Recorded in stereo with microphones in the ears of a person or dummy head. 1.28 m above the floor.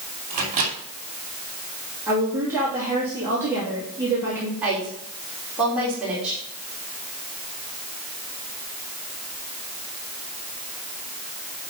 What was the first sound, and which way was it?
A microwave, 45° right (ahead or behind).